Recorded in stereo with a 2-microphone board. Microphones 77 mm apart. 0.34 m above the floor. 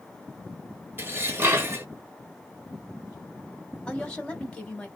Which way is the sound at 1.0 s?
35° right (ahead or behind).